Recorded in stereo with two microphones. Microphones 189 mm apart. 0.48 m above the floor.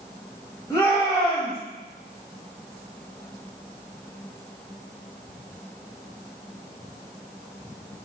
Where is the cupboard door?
I don't hear a cupboard door.